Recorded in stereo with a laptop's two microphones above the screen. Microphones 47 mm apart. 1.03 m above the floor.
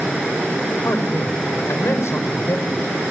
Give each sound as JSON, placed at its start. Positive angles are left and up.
{"t": 0.8, "sound": "a man speaking", "side_deg": 80, "distance_m": 5.0}